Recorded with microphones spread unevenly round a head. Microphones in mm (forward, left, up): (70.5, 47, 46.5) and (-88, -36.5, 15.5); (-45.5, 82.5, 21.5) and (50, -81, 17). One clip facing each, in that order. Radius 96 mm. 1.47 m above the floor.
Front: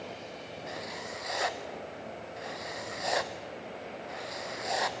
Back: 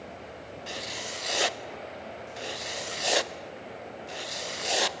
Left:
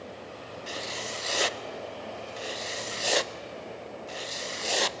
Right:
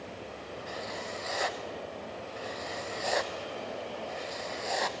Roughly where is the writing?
Behind left.